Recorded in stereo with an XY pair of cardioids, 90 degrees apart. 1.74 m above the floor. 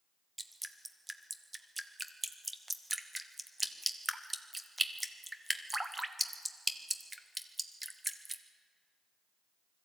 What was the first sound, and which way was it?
Dripping, 15° right.